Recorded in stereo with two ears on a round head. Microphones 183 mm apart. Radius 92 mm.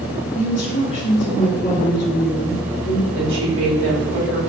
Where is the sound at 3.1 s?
65° right (ahead or behind), 1.9 m.